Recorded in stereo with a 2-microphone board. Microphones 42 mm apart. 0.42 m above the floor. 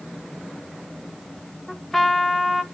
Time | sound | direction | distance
1.7 | a trumpet | 10° left (ahead or behind) | 1.0 m